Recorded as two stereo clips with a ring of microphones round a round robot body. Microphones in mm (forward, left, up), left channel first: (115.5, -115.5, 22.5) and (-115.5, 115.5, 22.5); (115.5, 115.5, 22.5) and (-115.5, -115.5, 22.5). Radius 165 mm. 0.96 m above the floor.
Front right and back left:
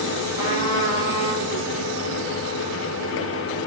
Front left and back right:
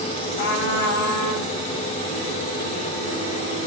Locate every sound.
0.4 s a trumpet: 55° left, 6 m